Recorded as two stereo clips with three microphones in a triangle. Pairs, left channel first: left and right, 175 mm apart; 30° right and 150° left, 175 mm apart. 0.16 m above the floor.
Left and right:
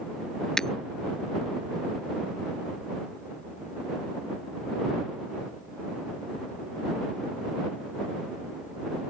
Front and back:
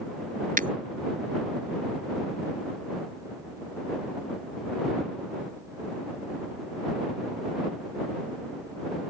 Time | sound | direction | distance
0.6 | breaking glass | 175° left | ?